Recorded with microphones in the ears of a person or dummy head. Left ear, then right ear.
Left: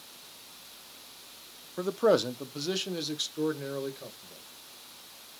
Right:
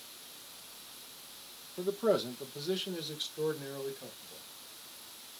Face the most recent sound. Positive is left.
turn(degrees=75)  # may be behind; listen again after turning